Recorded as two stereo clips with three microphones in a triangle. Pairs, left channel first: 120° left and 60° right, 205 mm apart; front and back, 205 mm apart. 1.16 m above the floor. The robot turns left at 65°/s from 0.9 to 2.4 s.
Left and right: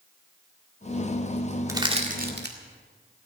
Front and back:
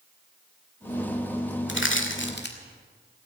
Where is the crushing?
15° left, 1.9 m; by 2.5 s 30° right, 1.9 m.